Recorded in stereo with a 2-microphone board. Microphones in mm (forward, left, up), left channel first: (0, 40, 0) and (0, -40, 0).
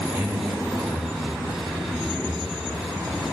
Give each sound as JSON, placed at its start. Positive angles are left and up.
{"t": 0.1, "sound": "a man speaking", "side_deg": -15, "distance_m": 2.5}